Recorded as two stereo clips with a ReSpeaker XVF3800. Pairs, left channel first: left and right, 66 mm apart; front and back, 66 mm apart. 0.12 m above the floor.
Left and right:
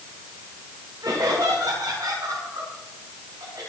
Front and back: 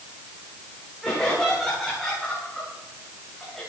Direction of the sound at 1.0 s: 85° right.